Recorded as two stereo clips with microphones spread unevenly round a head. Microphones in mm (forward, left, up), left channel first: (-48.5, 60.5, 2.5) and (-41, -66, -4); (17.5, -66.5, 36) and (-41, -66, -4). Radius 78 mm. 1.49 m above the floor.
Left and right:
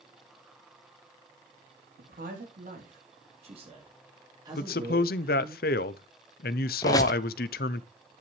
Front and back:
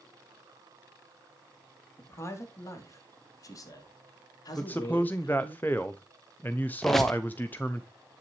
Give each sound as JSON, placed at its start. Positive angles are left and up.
{"t": 2.0, "sound": "a man speaking", "azimuth_deg": -50, "distance_m": 3.0}
{"t": 4.5, "sound": "a man speaking", "azimuth_deg": 85, "distance_m": 0.6}
{"t": 6.8, "sound": "a squeak", "azimuth_deg": 40, "distance_m": 0.7}